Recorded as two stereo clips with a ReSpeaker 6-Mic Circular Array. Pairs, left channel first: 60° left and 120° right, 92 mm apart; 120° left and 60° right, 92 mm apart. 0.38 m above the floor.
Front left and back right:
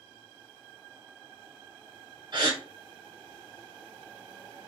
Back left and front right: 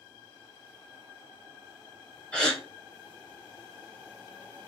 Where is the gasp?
160° right, 1.0 m.